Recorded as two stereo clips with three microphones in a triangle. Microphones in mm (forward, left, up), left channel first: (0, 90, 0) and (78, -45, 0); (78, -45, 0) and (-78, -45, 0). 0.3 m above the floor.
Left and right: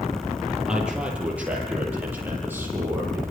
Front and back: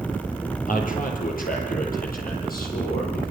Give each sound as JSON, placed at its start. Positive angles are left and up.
{"t": 0.7, "sound": "a man speaking", "azimuth_deg": 25, "distance_m": 10.0}